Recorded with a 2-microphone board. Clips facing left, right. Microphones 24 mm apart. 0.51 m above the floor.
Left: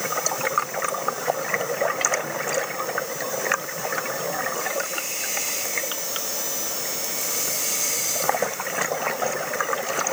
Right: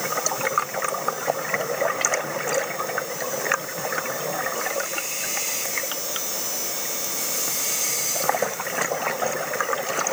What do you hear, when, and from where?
Only background noise.